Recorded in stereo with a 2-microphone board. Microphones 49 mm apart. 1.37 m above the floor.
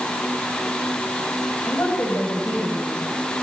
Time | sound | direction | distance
1.6 | a woman speaking | 50° left (ahead or behind) | 8.5 m